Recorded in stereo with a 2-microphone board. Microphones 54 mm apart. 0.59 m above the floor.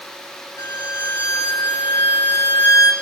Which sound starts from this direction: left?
A violin, at 0.6 s.